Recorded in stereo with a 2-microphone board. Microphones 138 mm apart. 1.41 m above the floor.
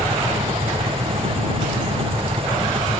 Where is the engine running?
40° right (ahead or behind).